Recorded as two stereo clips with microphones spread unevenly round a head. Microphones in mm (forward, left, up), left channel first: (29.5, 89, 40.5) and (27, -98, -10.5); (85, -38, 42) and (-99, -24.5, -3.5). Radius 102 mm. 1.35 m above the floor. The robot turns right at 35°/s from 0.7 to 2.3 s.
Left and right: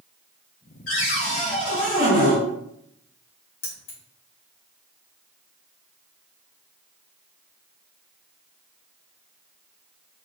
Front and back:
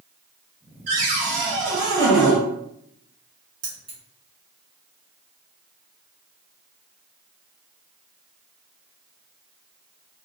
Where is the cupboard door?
125° left, 1.6 m; by 2.4 s 175° left, 1.6 m.